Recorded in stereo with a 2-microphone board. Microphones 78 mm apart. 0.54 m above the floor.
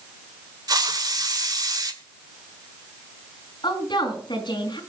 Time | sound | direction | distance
0.7 | a hiss | 55° right (ahead or behind) | 1.9 m
3.6 | a woman speaking | 75° left (ahead or behind) | 5 m